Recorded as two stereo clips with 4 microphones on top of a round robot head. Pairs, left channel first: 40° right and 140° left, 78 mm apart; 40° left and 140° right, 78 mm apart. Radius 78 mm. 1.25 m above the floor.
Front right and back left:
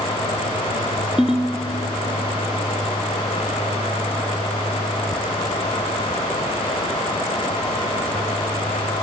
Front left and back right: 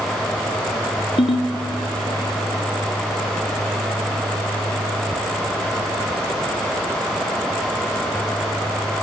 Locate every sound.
1.2 s a ringtone: 55° left, 1.7 m